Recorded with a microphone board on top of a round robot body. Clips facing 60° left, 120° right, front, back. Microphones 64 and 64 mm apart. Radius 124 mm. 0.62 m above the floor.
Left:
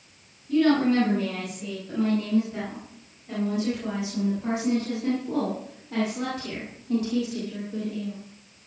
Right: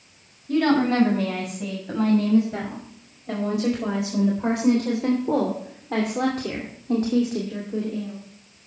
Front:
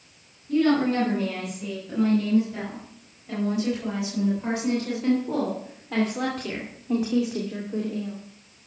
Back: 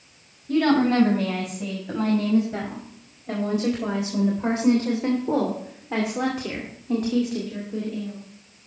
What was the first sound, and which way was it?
A woman speaking, 155° right.